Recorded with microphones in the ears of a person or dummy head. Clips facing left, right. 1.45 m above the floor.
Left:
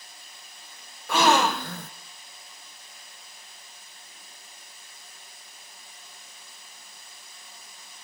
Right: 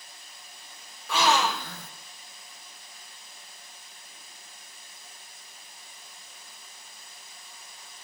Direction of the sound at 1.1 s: 45° left (ahead or behind).